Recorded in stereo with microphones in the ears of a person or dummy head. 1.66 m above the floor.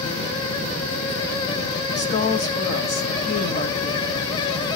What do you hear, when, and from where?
2.0 s a woman speaking: 40° left (ahead or behind), 1.8 m